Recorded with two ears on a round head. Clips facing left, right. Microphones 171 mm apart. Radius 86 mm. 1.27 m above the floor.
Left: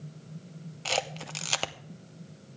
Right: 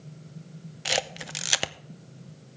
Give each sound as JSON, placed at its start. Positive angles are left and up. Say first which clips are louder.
{"t": 0.8, "sound": "a camera shutter", "louder": "right 1 dB", "side_deg": -15, "distance_m": 0.5}